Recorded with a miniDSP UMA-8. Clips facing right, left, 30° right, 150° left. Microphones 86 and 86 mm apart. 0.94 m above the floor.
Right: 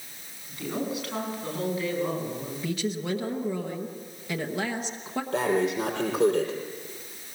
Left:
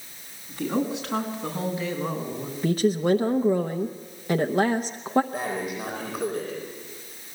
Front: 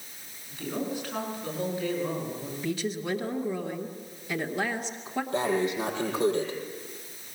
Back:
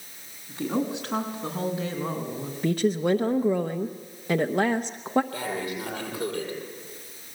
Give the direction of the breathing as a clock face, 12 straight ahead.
3 o'clock.